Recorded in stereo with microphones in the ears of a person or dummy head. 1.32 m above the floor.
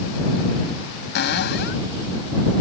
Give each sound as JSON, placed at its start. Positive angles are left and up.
{"t": 1.1, "sound": "a cupboard door", "side_deg": 60}